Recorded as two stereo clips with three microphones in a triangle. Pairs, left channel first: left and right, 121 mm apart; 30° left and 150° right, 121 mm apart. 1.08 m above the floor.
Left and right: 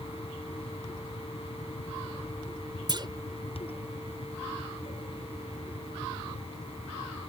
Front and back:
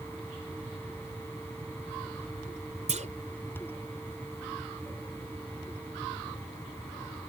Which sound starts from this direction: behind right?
A clunk, at 2.9 s.